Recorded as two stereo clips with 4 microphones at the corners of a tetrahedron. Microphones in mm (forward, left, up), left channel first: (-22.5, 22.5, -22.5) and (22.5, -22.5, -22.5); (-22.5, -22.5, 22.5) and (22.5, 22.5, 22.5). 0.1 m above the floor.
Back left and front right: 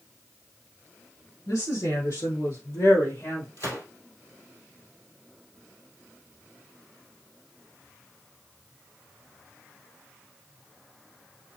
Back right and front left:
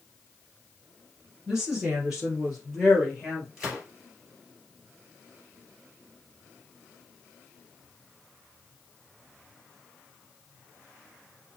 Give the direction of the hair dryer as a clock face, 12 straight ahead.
No hair dryer in this recording.